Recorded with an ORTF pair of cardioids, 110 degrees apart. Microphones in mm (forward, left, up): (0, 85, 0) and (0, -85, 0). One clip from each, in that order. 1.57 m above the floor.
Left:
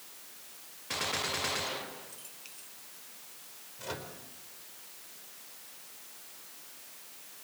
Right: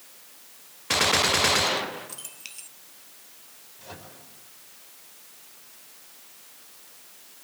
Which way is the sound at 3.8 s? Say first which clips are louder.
Left 4 dB; 45° left.